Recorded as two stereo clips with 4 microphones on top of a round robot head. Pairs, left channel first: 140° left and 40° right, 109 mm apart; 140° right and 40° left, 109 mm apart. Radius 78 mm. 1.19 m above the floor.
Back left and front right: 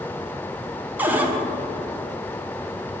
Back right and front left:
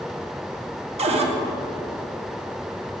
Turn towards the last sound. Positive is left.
turn(degrees=35)